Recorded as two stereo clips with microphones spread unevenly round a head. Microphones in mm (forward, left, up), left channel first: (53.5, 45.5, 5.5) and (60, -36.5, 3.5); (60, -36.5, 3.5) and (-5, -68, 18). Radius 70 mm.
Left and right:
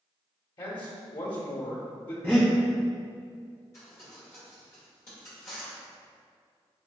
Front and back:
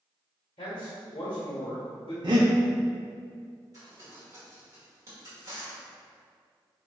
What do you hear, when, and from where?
0.6 s a man speaking: 70° left, 1.2 m
2.2 s breathing: 170° left, 0.5 m
3.7 s crumpling: 155° left, 1.3 m